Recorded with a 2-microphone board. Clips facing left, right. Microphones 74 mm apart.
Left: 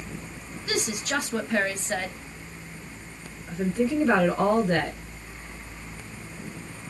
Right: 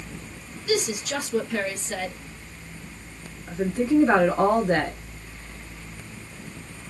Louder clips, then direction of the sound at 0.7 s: Right 3 dB; 40° left (ahead or behind).